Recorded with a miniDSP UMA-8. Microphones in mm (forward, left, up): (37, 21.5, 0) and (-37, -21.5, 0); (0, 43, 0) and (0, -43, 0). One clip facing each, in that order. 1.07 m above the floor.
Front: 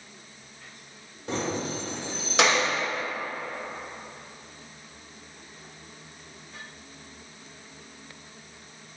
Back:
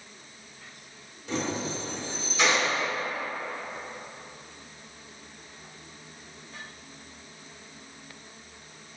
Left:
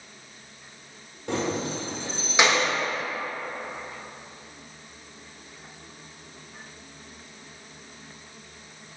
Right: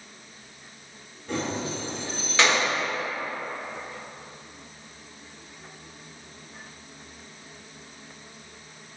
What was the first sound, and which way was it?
Keys jangling, 80° left.